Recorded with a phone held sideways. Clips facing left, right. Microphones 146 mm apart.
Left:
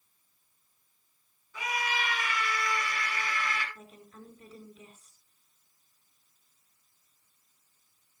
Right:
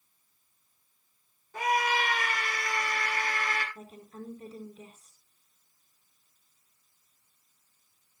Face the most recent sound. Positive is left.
turn(degrees=-35)  # may be behind; listen again after turning